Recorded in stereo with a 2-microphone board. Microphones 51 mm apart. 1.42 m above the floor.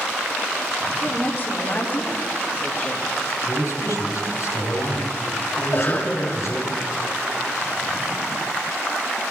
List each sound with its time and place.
1.0 s a woman speaking: 50° left (ahead or behind), 4 m; by 3.1 s 30° left (ahead or behind), 3 m
3.5 s a man speaking: 85° left, 3.5 m
5.6 s a cough: 40° left (ahead or behind), 3.5 m